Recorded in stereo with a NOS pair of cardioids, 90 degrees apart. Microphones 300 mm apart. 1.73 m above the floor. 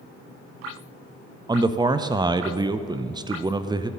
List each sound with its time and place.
1.5 s a man speaking: 15° right, 0.5 m